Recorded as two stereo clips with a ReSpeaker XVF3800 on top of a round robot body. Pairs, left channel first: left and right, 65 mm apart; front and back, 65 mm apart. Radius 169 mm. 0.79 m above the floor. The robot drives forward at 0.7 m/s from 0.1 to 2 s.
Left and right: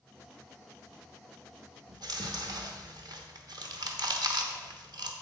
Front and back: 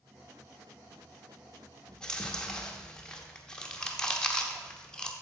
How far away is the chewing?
About 1.0 m.